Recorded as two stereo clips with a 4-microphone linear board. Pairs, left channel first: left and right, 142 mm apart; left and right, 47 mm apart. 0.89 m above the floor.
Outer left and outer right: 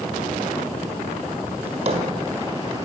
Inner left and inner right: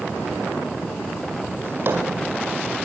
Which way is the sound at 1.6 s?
45° right (ahead or behind).